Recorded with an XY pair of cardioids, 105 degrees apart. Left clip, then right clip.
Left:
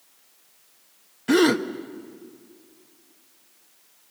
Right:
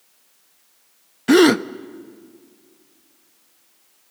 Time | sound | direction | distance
1.3 | a gasp | 45° right | 0.7 m